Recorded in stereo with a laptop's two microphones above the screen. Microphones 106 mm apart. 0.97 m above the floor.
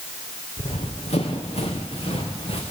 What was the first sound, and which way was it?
Running footsteps, 70° left (ahead or behind).